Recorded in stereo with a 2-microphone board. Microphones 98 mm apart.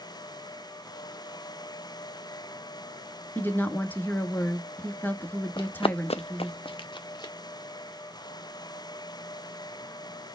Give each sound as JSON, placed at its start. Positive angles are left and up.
{"t": 3.4, "sound": "a woman speaking", "side_deg": 20, "distance_m": 1.1}
{"t": 5.6, "sound": "running footsteps", "side_deg": 45, "distance_m": 0.5}